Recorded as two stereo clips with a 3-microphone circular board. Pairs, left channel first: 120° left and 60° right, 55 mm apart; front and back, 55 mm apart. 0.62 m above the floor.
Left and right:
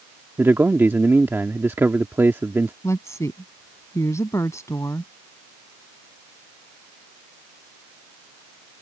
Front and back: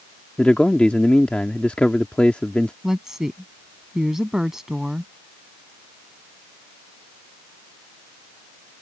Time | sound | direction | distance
0.4 | a man speaking | 60° right | ?
2.8 | a woman speaking | 100° left | ?